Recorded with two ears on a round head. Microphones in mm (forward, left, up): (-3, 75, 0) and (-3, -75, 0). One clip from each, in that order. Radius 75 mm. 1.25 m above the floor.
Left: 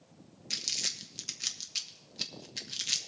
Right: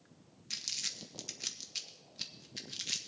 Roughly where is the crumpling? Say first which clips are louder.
Left 5 dB; centre.